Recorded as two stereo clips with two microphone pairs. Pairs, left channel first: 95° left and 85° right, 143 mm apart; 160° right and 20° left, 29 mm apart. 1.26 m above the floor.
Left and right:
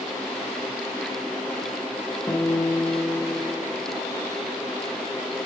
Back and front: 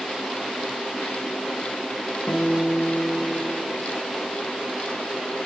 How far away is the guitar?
About 1.1 m.